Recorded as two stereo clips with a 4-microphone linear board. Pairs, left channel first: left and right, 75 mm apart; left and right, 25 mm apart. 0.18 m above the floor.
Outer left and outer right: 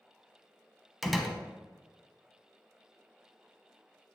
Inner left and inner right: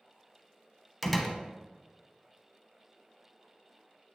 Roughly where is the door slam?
Centre.